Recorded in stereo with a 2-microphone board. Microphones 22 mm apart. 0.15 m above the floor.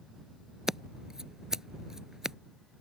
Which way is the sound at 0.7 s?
25° right (ahead or behind).